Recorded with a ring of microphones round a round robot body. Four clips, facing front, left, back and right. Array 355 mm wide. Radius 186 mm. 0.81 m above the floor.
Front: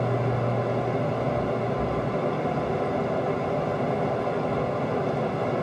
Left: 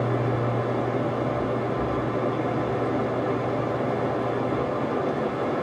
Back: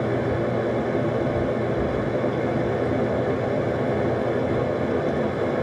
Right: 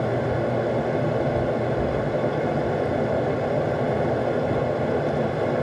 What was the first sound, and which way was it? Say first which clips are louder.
Running water: right 2 dB, back 3 dB; 135° right.